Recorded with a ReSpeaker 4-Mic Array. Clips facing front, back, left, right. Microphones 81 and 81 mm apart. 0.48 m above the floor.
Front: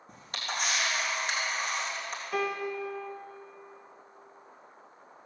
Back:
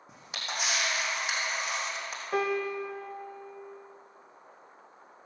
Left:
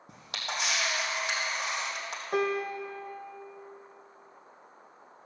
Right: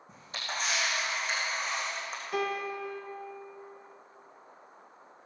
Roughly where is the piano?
Behind left.